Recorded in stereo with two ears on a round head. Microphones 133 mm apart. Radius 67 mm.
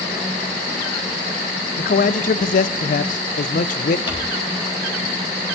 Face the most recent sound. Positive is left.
turn(degrees=35)  # may be behind; listen again after turning